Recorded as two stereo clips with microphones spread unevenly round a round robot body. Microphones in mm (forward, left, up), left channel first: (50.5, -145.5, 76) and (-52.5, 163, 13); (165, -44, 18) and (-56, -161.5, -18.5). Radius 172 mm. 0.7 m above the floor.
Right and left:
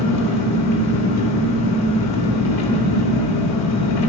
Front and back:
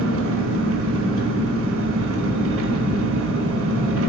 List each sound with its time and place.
0.0 s an engine running: 120° right, 2 m